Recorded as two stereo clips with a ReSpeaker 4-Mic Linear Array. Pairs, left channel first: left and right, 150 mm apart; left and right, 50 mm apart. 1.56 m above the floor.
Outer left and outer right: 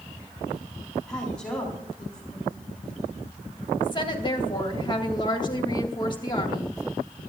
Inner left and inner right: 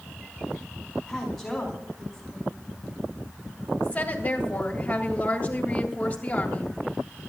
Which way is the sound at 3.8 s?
30° left (ahead or behind).